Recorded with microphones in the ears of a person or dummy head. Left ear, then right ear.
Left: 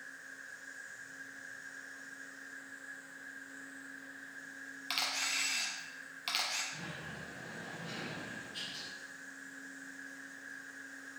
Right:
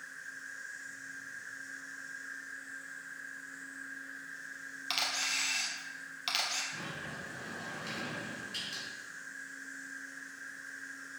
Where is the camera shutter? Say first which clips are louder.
Right 2 dB; 5° right (ahead or behind), 1.1 m.